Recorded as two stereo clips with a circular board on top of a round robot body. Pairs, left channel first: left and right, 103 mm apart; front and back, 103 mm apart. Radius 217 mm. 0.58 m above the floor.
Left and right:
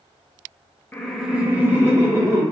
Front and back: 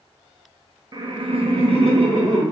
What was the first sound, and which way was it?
Laughter, 155° left.